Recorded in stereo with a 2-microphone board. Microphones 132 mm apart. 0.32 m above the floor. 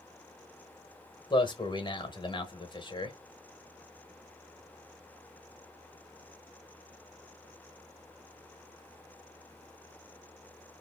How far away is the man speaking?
About 1.0 m.